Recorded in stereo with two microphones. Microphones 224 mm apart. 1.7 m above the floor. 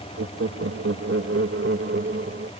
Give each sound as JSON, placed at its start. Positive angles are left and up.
{"t": 0.2, "sound": "laughter", "side_deg": -85}